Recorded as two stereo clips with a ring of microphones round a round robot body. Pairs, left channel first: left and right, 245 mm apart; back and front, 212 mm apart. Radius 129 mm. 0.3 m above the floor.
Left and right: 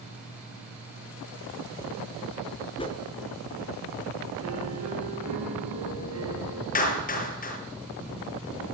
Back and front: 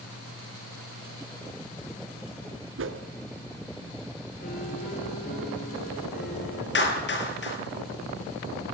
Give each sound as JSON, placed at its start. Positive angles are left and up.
{"t": 2.8, "sound": "a whoosh", "azimuth_deg": 20, "distance_m": 4.0}
{"t": 4.4, "sound": "a piano", "azimuth_deg": -120, "distance_m": 8.0}
{"t": 6.8, "sound": "a clap", "azimuth_deg": 145, "distance_m": 7.5}